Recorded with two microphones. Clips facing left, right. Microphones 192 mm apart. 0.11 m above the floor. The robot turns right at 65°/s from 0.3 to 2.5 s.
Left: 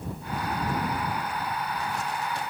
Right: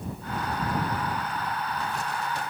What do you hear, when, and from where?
Only background noise.